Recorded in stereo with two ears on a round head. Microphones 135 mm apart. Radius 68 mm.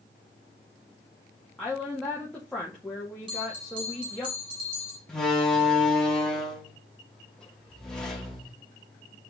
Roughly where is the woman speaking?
Centre.